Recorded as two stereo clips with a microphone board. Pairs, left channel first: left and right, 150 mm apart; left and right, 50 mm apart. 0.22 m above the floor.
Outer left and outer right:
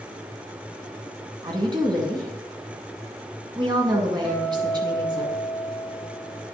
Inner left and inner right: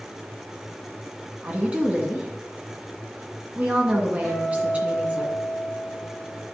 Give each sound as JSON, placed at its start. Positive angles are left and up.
{"t": 1.4, "sound": "a woman speaking", "side_deg": -30, "distance_m": 1.9}
{"t": 4.2, "sound": "a guitar", "side_deg": -5, "distance_m": 4.0}